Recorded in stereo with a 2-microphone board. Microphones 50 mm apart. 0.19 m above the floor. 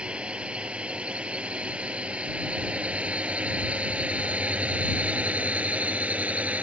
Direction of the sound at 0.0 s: 20° right (ahead or behind).